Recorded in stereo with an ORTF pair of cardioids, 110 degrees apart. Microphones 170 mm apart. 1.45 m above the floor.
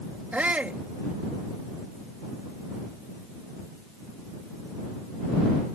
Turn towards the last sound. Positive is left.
turn(degrees=-10)